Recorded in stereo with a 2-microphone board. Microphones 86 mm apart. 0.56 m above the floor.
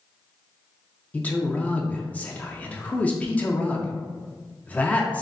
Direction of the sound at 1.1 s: 15° left (ahead or behind).